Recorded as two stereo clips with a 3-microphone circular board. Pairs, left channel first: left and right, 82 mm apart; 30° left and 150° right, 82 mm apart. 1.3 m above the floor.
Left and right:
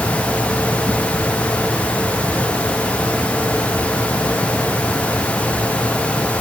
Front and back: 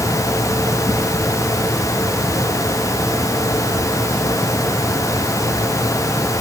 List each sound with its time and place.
Only background noise.